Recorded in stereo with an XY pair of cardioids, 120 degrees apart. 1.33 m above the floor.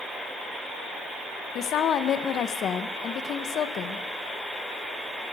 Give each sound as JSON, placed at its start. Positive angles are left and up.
{"t": 1.6, "sound": "a woman speaking", "azimuth_deg": 60, "distance_m": 0.9}